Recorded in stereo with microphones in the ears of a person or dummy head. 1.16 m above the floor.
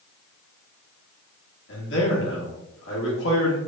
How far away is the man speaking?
About 1.3 m.